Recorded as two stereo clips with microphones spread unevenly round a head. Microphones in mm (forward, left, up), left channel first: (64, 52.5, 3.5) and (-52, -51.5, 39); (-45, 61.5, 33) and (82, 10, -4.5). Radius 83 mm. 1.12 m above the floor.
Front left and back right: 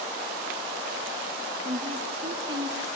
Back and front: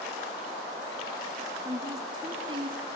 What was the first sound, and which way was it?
A woman speaking, 85° right.